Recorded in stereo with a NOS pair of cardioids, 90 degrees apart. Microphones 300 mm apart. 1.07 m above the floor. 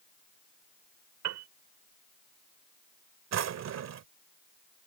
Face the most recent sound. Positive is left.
turn(degrees=-65)